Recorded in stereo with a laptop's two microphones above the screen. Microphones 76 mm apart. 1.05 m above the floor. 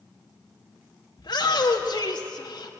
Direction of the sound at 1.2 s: 70° left (ahead or behind).